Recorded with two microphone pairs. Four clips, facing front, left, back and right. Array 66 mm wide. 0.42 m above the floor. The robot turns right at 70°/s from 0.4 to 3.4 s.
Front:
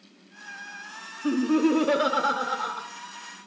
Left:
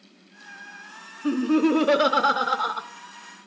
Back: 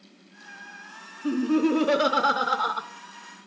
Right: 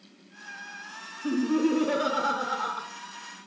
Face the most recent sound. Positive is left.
turn(degrees=-170)